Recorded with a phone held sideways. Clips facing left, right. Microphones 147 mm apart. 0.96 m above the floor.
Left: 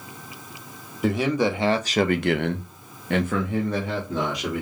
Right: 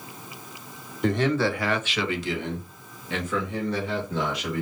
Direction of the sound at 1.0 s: 5° left (ahead or behind).